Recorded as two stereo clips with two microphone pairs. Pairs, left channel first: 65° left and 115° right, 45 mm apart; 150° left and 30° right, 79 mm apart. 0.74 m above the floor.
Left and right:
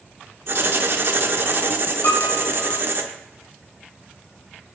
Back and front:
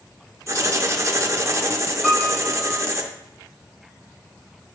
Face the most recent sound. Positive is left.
turn(degrees=60)